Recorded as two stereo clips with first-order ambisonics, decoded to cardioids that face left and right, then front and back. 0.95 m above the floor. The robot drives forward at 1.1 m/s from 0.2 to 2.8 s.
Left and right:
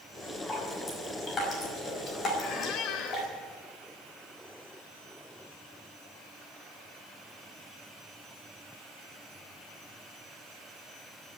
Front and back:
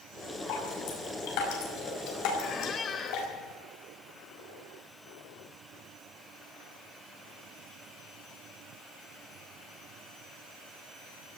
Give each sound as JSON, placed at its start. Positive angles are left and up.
{"t": 0.5, "sound": "dripping", "azimuth_deg": 20, "distance_m": 6.0}
{"t": 2.4, "sound": "a squeak", "azimuth_deg": 45, "distance_m": 1.3}